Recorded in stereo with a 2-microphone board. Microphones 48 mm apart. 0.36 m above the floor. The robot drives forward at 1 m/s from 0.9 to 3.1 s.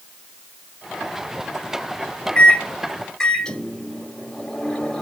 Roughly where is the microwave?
Left.